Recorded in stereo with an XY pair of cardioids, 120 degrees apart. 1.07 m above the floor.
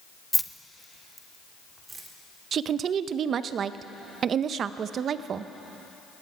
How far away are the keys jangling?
About 0.5 m.